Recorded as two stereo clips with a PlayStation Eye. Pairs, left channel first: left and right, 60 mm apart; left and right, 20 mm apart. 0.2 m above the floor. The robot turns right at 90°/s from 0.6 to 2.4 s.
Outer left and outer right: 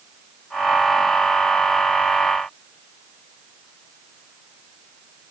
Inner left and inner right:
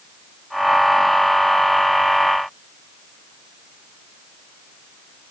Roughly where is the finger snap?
I don't hear a finger snap.